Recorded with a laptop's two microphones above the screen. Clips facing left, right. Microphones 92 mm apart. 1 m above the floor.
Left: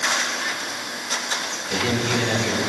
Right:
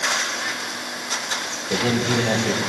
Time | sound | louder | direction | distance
1.7 | a man speaking | right 2 dB | 25° right (ahead or behind) | 4.5 m